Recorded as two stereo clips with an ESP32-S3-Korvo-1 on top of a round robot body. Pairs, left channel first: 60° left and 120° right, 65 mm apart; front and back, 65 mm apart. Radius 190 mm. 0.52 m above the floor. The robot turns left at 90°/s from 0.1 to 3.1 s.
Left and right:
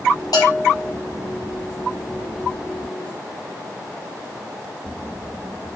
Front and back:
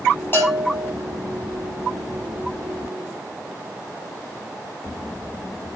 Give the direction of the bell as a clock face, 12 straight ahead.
10 o'clock.